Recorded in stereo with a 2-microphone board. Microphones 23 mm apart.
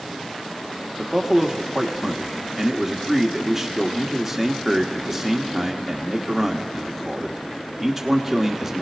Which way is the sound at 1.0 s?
10° right (ahead or behind).